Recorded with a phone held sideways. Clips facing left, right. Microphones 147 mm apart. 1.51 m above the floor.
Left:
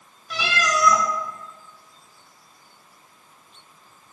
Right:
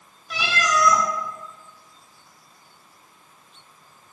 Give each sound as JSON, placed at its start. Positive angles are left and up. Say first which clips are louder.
{"t": 0.3, "sound": "a cat meowing", "louder": "right 1 dB", "side_deg": 0, "distance_m": 0.7}